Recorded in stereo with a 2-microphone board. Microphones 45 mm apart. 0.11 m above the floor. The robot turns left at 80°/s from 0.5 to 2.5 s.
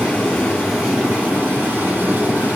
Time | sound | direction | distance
0.0 | running water | 25° left | 2 m